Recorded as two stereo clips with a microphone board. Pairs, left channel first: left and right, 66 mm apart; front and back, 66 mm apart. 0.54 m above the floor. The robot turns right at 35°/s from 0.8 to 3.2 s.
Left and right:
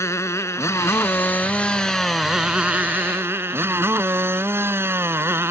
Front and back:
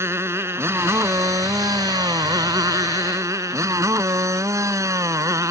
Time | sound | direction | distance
0.0 | a motorcycle | 135° left | ?